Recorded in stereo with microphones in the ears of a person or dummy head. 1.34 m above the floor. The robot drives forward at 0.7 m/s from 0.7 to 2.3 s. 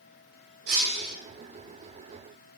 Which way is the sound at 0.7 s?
60° right (ahead or behind).